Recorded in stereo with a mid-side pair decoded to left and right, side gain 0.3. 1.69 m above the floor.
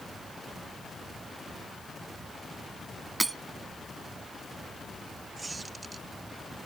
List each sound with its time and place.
3.2 s breaking glass: 25° right
5.4 s a squeak: 40° right